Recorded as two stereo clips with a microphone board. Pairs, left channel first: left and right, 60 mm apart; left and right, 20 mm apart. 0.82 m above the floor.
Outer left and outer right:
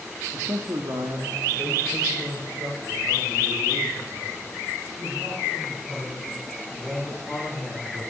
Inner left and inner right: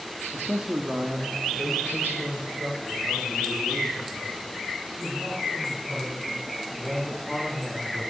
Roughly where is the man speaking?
Right.